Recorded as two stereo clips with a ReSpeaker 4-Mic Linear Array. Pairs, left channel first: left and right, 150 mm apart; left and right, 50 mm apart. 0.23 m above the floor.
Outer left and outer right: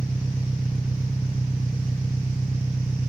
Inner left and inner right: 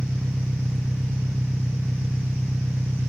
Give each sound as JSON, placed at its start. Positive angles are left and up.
{"t": 0.0, "sound": "an engine running", "side_deg": -10}